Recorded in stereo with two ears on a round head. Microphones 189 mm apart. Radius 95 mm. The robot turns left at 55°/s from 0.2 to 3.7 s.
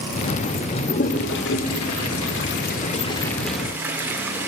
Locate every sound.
0.8 s a toilet flushing: 30° left (ahead or behind), 2.5 m; by 4.5 s 10° right (ahead or behind), 2.5 m